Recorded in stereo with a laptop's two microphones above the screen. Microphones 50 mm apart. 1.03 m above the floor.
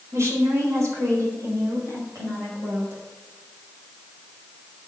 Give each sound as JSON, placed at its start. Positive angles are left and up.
{"t": 0.1, "sound": "a woman speaking", "side_deg": -70, "distance_m": 3.5}